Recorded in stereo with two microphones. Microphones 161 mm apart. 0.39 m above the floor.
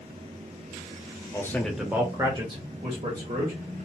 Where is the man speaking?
20° left (ahead or behind), 0.8 m; by 3.8 s 50° right (ahead or behind), 1.7 m.